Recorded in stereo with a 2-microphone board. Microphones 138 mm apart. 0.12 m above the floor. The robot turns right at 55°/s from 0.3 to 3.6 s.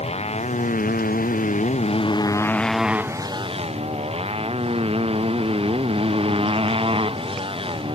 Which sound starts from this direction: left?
A motorcycle, at 0.0 s.